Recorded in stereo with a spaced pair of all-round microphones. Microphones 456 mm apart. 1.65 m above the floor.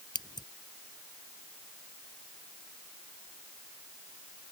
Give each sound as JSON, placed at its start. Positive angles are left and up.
{"t": 0.1, "sound": "scissors", "side_deg": 10}